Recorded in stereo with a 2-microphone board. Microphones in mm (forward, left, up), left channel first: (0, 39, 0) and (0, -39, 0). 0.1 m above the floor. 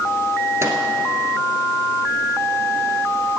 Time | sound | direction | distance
0.6 | a microwave | 40° right (ahead or behind) | 1.4 m